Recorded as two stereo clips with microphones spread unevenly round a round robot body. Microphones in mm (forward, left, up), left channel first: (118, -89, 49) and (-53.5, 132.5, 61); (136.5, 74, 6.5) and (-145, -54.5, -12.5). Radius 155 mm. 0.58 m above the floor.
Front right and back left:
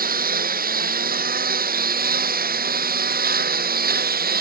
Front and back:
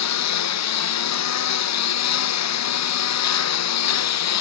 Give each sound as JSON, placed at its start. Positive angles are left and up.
{"t": 0.0, "sound": "a lawn mower", "azimuth_deg": 65}